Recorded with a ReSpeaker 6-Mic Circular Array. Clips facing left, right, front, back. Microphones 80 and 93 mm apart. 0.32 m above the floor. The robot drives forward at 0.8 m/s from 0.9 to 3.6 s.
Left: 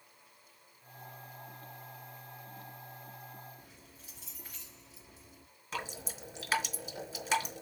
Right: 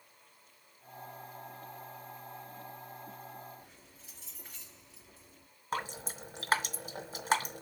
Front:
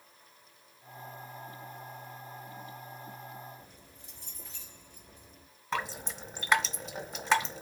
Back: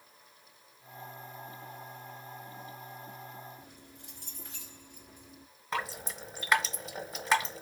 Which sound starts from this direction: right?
Dripping, at 5.7 s.